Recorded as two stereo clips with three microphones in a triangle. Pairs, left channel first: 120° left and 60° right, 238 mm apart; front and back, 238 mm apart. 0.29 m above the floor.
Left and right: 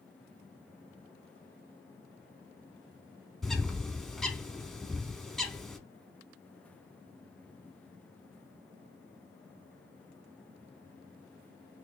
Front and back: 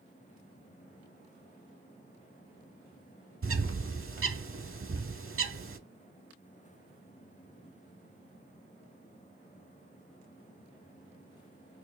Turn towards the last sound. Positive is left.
turn(degrees=-150)